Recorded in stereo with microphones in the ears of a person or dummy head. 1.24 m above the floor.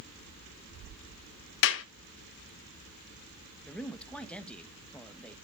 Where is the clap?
70° left (ahead or behind), 1.1 m.